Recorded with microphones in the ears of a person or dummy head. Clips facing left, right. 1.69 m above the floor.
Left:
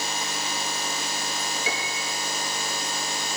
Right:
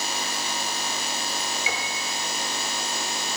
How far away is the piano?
About 5 m.